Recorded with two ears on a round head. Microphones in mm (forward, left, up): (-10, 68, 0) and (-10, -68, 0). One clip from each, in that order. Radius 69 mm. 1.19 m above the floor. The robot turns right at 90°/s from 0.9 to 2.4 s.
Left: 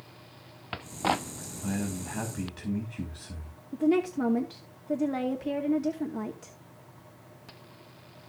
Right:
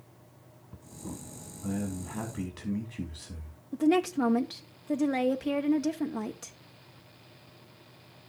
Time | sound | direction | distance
1.6 | a man speaking | 125° left | 1.9 m
3.7 | a woman speaking | 30° right (ahead or behind) | 0.6 m